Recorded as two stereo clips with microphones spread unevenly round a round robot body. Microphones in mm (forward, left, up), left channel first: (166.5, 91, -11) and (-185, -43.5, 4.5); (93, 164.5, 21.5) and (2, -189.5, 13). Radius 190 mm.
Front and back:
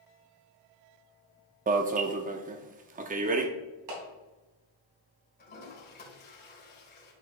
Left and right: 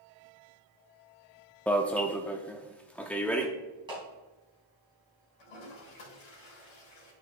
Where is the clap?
175° left, 3.5 m.